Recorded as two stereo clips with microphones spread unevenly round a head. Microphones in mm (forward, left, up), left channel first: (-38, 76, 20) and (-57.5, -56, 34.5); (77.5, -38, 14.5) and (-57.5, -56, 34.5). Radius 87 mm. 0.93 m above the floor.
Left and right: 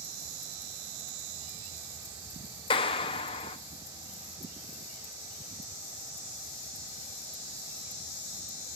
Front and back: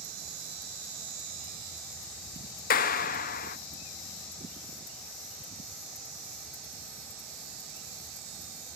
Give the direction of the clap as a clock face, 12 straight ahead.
11 o'clock.